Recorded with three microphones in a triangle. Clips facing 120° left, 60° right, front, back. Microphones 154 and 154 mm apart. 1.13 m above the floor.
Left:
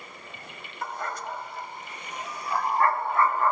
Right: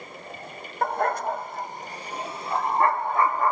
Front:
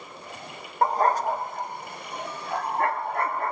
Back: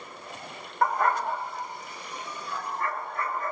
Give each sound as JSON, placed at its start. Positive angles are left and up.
{"t": 0.8, "sound": "a dog barking", "azimuth_deg": -55, "distance_m": 1.7}